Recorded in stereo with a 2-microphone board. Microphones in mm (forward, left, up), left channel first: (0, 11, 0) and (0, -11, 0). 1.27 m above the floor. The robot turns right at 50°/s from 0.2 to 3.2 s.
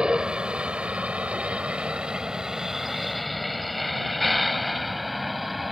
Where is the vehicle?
50° right (ahead or behind); by 5.7 s centre (ahead or behind).